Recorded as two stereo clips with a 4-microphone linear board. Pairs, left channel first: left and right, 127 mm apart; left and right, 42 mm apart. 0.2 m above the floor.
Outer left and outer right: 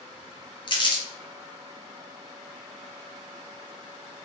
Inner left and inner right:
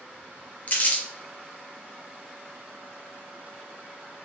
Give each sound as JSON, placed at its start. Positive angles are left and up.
{"t": 0.7, "sound": "crumpling", "side_deg": 40, "distance_m": 1.1}